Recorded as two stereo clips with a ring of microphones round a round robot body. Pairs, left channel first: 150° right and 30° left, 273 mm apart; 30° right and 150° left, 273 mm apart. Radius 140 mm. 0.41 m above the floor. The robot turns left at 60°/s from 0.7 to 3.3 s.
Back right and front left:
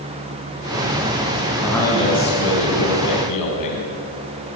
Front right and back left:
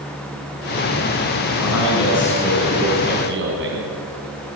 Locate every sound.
1.6 s a man speaking: 55° right, 5 m; by 3.9 s 160° right, 5 m